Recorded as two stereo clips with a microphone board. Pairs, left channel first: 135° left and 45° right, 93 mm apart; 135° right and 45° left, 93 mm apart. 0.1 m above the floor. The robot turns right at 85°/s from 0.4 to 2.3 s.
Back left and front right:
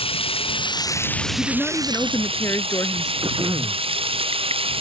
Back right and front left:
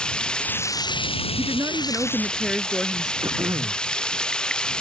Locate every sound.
0.0 s running water: 145° left; by 4.8 s 55° right
1.4 s a woman speaking: 45° left; by 3.1 s 120° left
3.2 s throat clearing: 5° right